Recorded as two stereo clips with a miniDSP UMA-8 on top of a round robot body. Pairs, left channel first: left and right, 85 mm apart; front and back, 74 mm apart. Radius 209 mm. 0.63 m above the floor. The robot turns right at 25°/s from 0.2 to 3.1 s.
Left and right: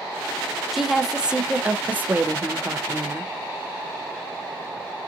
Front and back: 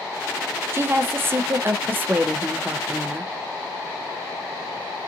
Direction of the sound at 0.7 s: 175° right.